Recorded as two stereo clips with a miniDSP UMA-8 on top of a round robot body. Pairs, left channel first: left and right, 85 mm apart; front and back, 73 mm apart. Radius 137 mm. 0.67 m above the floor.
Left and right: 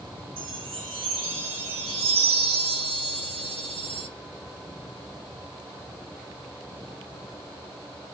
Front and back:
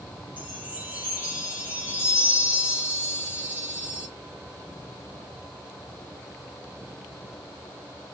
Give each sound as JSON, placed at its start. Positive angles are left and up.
{"t": 0.4, "sound": "a chime", "azimuth_deg": -110, "distance_m": 1.2}